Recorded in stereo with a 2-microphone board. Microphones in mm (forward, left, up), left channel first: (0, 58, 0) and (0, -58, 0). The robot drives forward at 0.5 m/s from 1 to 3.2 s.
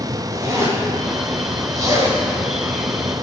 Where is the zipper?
25° right (ahead or behind), 2.5 m; by 3.2 s 45° right (ahead or behind), 1.7 m.